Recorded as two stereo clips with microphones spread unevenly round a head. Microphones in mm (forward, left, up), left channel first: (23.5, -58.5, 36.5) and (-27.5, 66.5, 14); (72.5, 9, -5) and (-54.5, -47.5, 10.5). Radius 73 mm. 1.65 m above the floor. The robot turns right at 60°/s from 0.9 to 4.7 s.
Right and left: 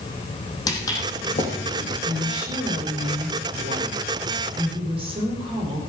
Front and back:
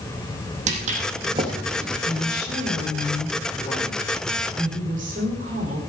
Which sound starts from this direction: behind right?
Footsteps, at 0.7 s.